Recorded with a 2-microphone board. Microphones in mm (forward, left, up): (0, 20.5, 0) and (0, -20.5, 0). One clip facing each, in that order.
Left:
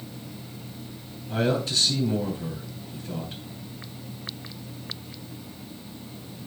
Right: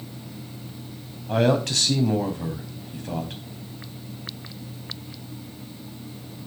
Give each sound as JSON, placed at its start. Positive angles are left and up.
{"t": 1.3, "sound": "a man speaking", "side_deg": -75, "distance_m": 4.0}